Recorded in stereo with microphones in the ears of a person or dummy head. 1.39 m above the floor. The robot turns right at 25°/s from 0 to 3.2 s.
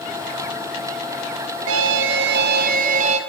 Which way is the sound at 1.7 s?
80° right.